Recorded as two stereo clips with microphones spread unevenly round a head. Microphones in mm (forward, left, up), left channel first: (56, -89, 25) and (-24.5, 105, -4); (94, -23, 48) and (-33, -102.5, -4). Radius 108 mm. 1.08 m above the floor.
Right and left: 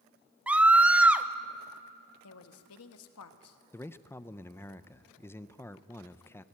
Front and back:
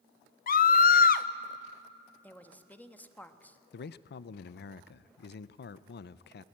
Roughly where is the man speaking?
Ahead.